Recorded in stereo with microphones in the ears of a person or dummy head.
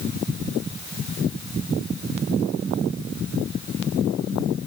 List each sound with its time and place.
Only background noise.